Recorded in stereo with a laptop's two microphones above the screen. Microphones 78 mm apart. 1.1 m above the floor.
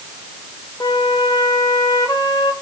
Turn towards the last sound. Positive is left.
turn(degrees=60)  # may be behind; listen again after turning